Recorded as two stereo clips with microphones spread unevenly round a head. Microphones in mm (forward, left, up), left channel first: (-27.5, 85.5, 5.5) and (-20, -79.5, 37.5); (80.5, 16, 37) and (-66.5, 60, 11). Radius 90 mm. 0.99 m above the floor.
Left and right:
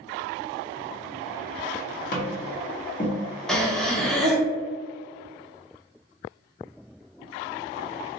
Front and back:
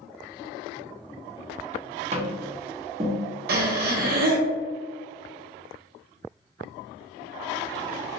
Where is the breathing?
175° left, 0.6 m.